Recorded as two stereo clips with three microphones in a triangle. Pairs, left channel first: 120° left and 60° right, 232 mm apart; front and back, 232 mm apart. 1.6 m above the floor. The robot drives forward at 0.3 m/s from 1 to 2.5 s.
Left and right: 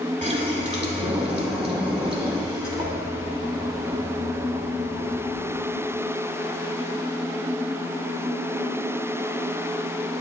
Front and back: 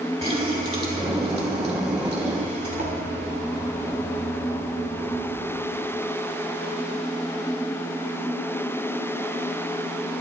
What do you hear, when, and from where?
0.2 s a running tap: 115° right, 2.5 m; by 5.4 s 125° right, 3 m